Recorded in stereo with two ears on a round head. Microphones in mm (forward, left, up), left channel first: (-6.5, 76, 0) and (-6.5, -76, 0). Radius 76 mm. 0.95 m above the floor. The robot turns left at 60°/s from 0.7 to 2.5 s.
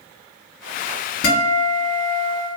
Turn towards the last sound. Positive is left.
turn(degrees=15)